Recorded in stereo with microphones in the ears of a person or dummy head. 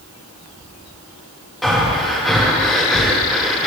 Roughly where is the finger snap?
No finger snap in this recording.